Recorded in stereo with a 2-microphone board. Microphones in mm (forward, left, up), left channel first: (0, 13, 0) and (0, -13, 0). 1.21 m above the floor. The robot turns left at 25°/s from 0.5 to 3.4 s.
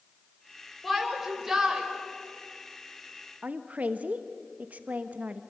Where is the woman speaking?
70° right (ahead or behind), 1.2 m.